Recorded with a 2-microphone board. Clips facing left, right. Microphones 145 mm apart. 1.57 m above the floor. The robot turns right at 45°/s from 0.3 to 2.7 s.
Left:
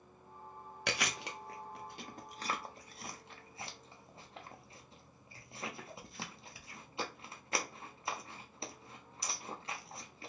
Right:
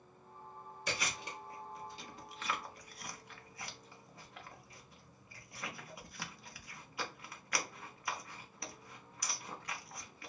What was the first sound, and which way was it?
Chewing, 70° left (ahead or behind).